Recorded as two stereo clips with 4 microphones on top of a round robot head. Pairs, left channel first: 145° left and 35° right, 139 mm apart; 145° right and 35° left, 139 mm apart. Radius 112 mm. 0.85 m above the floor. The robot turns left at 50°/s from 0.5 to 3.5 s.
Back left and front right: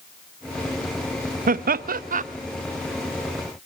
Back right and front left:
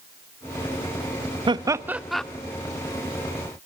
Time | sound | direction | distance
1.5 | laughter | 20° right | 0.8 m